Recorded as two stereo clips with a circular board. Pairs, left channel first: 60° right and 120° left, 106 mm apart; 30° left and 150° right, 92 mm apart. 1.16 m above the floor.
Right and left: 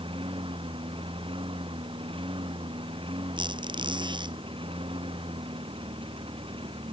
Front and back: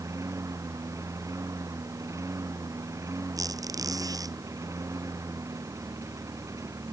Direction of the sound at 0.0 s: 155° left.